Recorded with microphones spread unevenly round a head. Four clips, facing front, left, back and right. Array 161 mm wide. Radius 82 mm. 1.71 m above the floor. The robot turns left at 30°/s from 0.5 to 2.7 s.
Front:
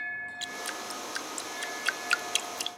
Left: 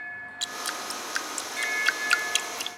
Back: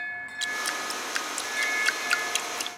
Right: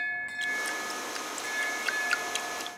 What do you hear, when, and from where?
0.4 s dripping: 125° left; by 2.8 s 60° left